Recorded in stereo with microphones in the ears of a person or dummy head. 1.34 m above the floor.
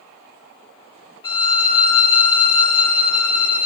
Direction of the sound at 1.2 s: 25° left (ahead or behind).